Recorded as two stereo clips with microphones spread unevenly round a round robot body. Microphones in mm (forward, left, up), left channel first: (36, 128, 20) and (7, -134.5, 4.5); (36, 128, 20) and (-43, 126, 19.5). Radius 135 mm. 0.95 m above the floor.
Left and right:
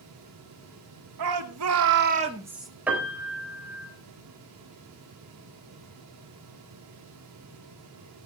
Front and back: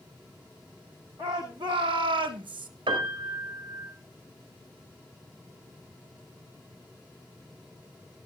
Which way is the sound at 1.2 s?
110° right.